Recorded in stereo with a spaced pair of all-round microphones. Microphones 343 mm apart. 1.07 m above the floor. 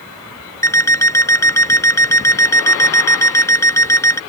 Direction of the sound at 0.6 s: 10° left (ahead or behind).